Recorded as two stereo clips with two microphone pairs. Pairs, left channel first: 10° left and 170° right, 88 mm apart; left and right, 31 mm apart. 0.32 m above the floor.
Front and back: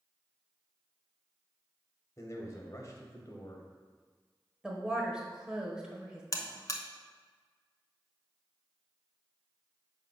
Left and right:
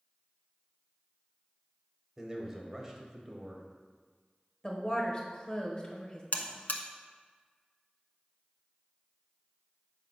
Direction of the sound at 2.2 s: 20° right.